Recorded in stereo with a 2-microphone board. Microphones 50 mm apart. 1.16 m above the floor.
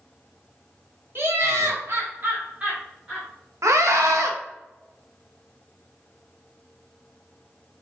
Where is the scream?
85° right, 0.9 m.